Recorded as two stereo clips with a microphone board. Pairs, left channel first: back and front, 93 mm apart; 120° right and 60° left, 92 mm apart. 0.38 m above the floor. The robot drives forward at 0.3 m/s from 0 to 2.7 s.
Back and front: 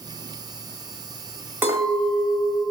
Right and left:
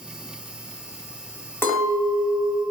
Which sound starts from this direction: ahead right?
A clink, at 1.6 s.